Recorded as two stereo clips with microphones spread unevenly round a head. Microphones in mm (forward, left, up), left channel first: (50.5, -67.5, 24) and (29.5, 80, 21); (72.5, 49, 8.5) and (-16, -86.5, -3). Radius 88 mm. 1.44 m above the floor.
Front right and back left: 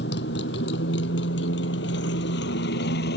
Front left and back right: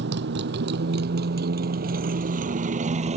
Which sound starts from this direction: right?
A motorcycle, at 0.0 s.